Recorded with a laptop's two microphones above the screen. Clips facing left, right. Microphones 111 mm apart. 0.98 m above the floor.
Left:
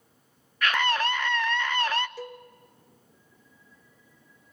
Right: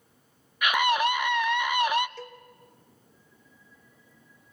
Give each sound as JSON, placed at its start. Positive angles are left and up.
{"t": 0.6, "sound": "a scream", "side_deg": -15, "distance_m": 0.8}
{"t": 2.2, "sound": "a cowbell", "side_deg": 10, "distance_m": 1.2}